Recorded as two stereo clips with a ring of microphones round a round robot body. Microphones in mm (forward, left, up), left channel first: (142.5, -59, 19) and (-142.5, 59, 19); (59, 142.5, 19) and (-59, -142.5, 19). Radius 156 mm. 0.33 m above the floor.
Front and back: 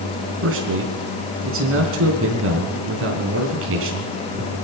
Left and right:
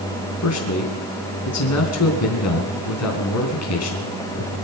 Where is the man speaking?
110° left, 4 m.